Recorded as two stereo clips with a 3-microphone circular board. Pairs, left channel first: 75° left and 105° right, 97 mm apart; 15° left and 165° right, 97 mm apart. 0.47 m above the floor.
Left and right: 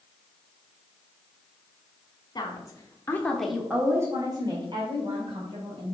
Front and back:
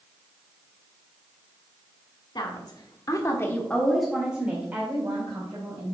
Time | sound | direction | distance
2.4 | a woman speaking | 40° left | 2.0 m